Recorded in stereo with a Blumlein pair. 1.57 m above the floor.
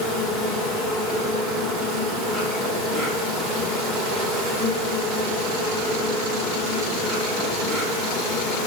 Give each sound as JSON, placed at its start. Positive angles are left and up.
{"t": 0.0, "sound": "an insect", "azimuth_deg": -10, "distance_m": 2.5}